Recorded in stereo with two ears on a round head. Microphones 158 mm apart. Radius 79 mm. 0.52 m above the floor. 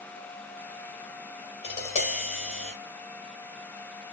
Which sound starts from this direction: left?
Tapping, at 1.6 s.